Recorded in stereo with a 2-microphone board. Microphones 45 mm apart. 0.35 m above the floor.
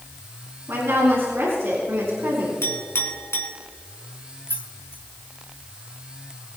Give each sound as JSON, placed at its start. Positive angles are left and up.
{"t": 0.7, "sound": "a woman speaking", "side_deg": -60, "distance_m": 5.0}
{"t": 2.6, "sound": "a clink", "side_deg": 60, "distance_m": 3.0}
{"t": 4.5, "sound": "keys jangling", "side_deg": 50, "distance_m": 1.7}